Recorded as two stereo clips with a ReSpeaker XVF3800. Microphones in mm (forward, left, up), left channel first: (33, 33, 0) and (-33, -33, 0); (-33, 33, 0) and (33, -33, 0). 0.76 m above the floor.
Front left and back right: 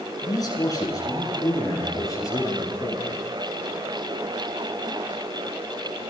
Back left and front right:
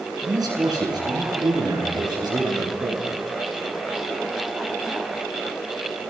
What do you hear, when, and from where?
0.2 s a man speaking: straight ahead, 9 m; by 3.2 s 10° right, 12 m